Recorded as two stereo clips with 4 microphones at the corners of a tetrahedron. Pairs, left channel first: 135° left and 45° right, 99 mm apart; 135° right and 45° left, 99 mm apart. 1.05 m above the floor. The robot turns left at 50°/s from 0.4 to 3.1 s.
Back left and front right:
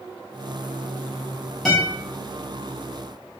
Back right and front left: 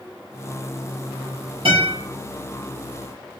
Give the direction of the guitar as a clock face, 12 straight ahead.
10 o'clock.